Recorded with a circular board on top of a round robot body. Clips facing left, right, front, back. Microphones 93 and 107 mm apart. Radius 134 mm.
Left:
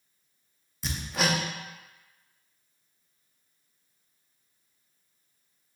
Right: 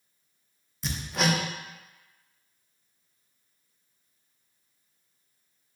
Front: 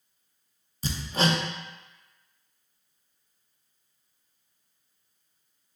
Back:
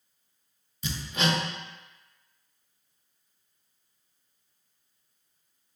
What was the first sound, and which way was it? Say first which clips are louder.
Hammering: right 1 dB, front 2 dB; straight ahead.